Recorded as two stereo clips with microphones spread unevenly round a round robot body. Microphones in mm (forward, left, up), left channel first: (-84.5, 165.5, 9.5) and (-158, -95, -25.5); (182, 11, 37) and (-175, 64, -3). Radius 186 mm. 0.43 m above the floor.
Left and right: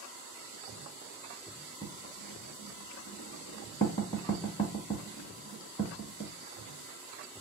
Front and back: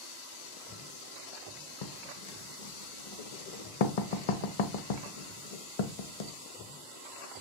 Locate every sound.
1.8 s writing: 5° right, 0.7 m